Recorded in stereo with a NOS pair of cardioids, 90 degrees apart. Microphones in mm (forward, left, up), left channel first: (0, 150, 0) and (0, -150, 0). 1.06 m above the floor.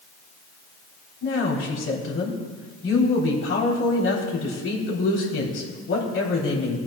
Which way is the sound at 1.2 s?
45° left.